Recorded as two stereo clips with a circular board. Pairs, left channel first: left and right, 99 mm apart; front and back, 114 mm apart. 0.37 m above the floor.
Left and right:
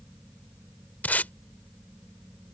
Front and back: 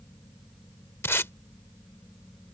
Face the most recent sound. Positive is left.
turn(degrees=40)